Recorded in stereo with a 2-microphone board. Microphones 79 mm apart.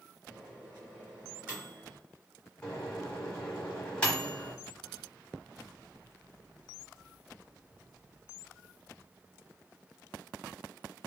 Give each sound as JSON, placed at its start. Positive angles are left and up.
{"t": 0.3, "sound": "a microwave", "side_deg": -25, "distance_m": 1.5}
{"t": 2.6, "sound": "a microwave", "side_deg": 15, "distance_m": 0.8}